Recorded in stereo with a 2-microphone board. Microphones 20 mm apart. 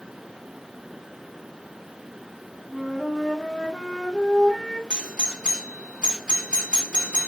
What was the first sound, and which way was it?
A flute, 25° right (ahead or behind).